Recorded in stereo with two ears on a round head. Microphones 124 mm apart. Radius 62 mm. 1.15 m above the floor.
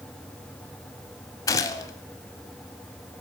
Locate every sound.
1.5 s a gunshot: 25° left (ahead or behind), 1.2 m